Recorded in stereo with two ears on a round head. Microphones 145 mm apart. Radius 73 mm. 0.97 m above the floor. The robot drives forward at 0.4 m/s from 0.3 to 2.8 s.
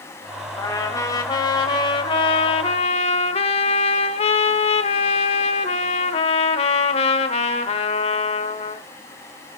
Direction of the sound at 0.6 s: 20° left (ahead or behind).